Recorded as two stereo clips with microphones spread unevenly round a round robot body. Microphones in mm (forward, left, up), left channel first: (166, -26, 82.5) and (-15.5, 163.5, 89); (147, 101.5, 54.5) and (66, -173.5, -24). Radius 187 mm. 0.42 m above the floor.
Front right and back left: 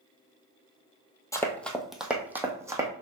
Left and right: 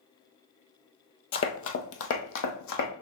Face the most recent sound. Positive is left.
turn(degrees=55)